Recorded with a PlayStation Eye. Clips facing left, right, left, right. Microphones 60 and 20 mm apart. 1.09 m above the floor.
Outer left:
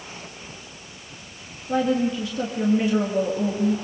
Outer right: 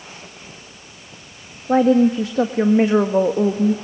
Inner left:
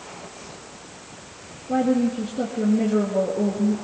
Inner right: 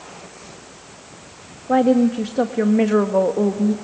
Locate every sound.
1.7 s a woman speaking: 75° right (ahead or behind), 1.6 m